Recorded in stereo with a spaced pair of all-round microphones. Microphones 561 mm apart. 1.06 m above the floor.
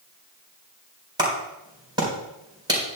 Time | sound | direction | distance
1.2 | a clap | 10° right (ahead or behind) | 3.5 m